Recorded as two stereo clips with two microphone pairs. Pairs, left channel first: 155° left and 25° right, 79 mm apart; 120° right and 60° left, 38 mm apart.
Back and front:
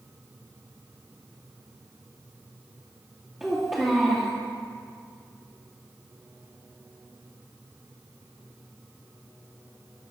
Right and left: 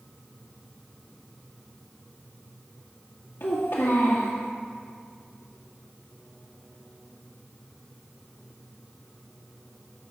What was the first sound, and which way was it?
A child speaking, 105° right.